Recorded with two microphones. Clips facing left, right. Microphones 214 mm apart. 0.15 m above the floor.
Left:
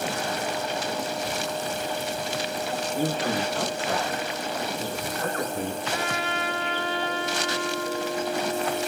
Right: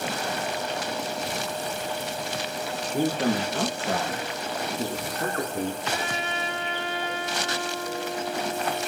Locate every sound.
2.9 s a man speaking: 60° right (ahead or behind), 5 m; by 5.8 s 30° right (ahead or behind), 4 m
5.9 s a trumpet: 25° right (ahead or behind), 2 m